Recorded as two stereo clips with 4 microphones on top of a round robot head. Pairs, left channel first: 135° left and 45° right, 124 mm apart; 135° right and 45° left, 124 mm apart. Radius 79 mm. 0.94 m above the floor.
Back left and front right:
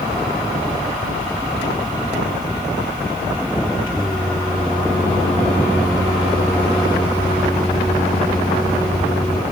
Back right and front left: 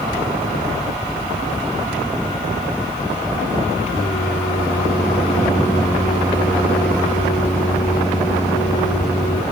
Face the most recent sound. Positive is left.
turn(degrees=-170)